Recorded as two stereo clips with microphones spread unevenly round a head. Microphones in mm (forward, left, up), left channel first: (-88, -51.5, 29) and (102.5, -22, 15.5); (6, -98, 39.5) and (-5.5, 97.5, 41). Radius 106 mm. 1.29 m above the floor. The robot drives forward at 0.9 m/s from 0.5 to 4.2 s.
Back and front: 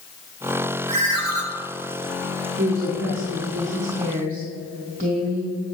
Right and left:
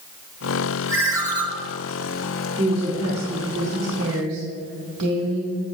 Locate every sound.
0.9 s a ringtone: 15° left, 1.8 m; by 1.4 s 25° left, 1.4 m
2.6 s a woman speaking: 40° left, 2.5 m; by 5.6 s 75° left, 1.6 m